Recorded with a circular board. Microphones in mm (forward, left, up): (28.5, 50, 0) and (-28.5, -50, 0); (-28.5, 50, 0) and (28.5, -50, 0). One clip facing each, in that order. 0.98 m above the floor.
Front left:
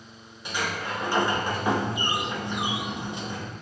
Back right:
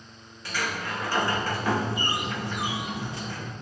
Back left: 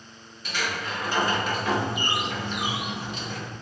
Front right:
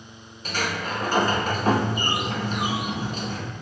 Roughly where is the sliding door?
Ahead.